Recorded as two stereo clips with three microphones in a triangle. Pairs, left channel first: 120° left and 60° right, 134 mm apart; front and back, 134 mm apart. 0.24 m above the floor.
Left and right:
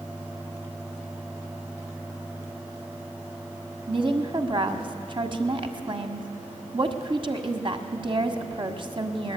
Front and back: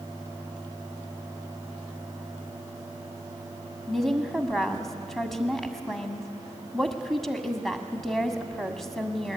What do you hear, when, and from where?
3.9 s a woman speaking: 85° right, 1.5 m